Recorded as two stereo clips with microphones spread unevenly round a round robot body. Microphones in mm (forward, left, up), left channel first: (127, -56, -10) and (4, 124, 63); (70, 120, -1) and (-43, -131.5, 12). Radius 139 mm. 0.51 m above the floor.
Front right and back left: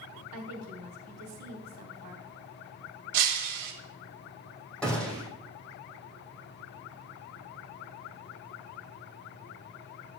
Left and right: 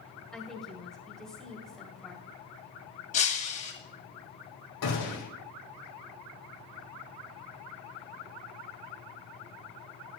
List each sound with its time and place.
0.3 s a woman speaking: 155° left, 2.5 m
3.1 s breaking glass: 130° left, 1.8 m
4.8 s a gunshot: 30° left, 4.5 m